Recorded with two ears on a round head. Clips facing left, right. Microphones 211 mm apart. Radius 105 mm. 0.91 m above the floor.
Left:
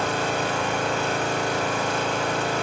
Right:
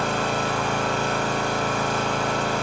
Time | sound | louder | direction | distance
0.0 | an engine running | even | 35° left (ahead or behind) | 0.9 m